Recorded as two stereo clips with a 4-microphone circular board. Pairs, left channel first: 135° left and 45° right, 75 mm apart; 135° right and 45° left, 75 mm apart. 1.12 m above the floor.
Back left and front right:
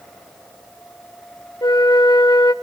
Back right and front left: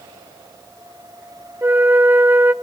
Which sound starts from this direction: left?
A flute, at 1.6 s.